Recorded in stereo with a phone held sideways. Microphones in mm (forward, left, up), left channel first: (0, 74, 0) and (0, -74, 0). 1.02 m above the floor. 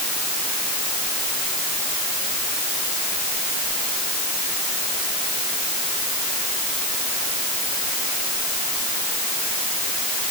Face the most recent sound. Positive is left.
No sound to turn to.